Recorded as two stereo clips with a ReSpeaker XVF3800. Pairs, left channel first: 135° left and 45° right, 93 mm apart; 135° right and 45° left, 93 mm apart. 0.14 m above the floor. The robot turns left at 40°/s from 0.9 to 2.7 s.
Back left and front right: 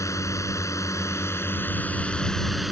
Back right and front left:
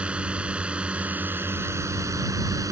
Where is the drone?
115° left; by 2.7 s 45° left.